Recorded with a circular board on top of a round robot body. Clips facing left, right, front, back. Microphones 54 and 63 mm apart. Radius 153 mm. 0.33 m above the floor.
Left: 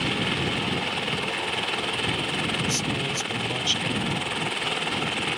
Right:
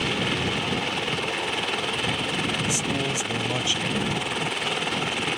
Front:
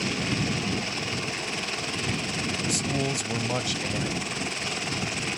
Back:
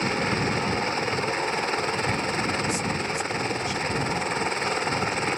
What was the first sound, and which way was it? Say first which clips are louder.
A helicopter: right 1 dB, back 4 dB; straight behind.